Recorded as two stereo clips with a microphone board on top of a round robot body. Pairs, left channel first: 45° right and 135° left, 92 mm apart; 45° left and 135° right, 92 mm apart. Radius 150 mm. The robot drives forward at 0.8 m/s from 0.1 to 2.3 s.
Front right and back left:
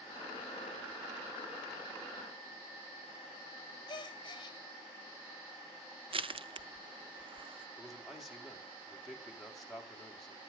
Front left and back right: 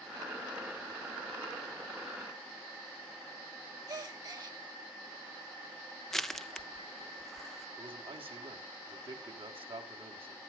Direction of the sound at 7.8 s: 135° right.